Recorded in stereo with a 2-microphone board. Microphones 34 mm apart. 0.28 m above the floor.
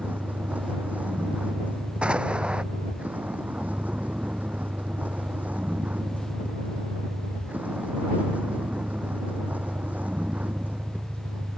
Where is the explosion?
35° right (ahead or behind).